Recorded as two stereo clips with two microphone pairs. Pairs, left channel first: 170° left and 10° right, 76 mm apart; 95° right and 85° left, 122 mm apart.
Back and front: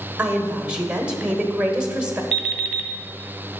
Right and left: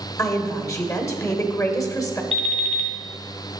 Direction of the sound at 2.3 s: 75° left.